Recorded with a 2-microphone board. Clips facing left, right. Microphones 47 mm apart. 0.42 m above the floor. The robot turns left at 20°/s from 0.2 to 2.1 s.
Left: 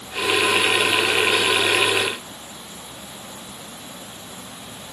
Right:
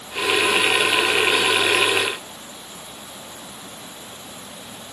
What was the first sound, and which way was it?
Only background noise.